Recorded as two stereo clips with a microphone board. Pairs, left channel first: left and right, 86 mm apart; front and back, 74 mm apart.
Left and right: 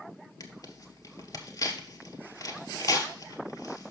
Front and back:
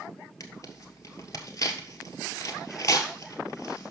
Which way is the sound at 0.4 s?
45° left.